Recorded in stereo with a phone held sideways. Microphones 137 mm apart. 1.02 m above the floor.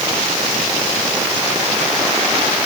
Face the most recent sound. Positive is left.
No sound to turn to.